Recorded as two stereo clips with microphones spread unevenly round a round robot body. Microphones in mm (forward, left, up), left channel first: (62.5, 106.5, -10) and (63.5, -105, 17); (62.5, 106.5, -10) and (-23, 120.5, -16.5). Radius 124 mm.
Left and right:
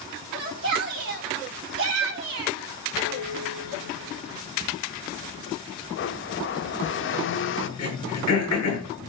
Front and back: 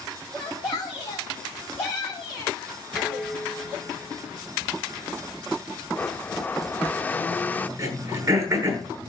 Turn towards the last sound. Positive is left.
turn(degrees=120)